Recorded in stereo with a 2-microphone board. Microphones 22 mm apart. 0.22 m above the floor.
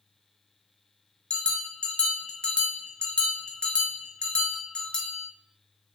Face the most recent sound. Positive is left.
turn(degrees=55)  # may be behind; listen again after turning